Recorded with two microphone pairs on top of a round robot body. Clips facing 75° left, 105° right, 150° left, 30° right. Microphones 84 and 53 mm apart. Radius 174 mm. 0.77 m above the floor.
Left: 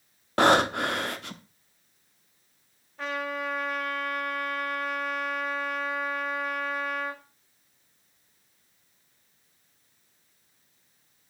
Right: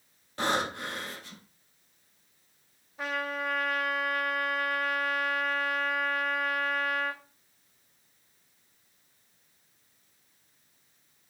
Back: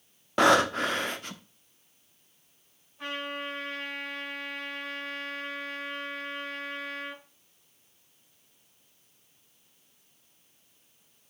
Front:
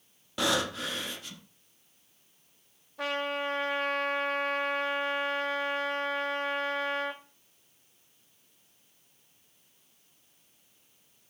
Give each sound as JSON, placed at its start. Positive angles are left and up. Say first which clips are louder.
{"t": 0.4, "sound": "breathing", "louder": "left 9 dB, back 8 dB", "azimuth_deg": 100, "distance_m": 1.0}
{"t": 3.0, "sound": "a trumpet", "louder": "left 1 dB, front 4 dB", "azimuth_deg": -25, "distance_m": 2.5}